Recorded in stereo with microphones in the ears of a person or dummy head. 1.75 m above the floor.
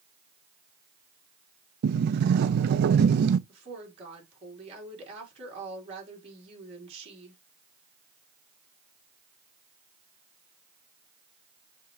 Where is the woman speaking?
40° right (ahead or behind), 4.5 m.